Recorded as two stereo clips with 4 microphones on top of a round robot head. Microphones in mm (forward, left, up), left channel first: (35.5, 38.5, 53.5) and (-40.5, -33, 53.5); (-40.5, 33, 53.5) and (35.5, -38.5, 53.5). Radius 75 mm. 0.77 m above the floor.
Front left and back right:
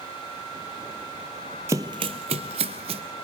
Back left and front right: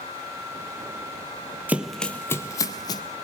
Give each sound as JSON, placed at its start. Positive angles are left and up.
{"t": 1.7, "sound": "running footsteps", "azimuth_deg": -100, "distance_m": 0.8}